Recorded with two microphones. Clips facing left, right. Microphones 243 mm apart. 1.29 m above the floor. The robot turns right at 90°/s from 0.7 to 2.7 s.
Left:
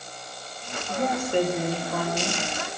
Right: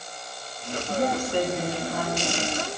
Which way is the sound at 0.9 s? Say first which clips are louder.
Even; 15° right.